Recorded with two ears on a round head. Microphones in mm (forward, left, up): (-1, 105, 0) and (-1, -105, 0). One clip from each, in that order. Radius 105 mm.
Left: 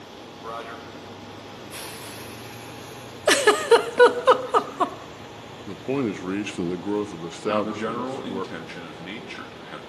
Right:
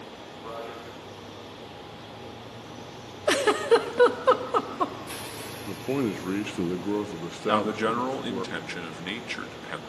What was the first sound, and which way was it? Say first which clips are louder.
A man speaking: left 3 dB; 65° left (ahead or behind).